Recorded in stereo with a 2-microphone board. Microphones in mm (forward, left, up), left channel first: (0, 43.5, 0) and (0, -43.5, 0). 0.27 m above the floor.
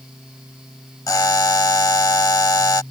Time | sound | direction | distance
1.1 | a buzzer | 40° left (ahead or behind) | ?